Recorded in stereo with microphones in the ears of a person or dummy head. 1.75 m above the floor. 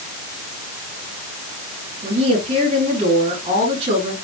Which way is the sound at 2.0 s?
35° right (ahead or behind).